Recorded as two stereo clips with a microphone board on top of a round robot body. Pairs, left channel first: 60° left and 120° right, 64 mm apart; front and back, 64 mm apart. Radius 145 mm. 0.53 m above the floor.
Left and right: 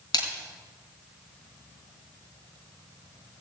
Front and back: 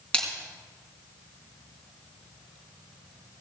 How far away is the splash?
About 3.5 m.